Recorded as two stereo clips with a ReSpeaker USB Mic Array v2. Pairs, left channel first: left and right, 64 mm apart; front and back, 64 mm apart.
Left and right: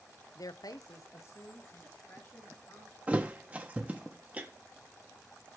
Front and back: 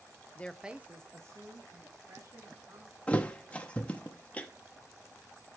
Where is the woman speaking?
60° left, 0.6 m; by 3.0 s 150° left, 4 m.